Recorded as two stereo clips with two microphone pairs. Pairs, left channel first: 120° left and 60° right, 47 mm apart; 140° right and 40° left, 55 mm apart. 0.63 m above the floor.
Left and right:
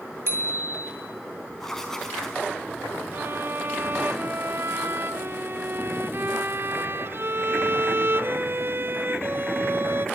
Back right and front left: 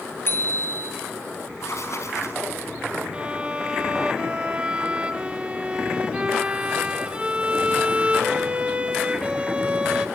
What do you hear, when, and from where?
0.3 s a bicycle bell: 90° right, 6.5 m
1.6 s writing: 160° right, 5 m
3.1 s a violin: 25° right, 1.5 m